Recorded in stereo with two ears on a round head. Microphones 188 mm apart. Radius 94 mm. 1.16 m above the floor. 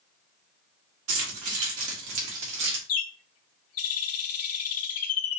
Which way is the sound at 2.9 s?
80° left.